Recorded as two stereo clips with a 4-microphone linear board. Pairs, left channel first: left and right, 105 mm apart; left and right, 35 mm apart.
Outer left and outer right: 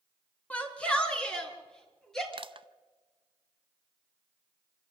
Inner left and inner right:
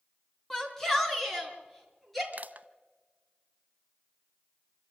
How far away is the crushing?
About 0.7 m.